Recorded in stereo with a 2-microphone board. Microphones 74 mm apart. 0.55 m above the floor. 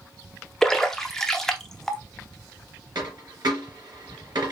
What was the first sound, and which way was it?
A splash, 5° left (ahead or behind).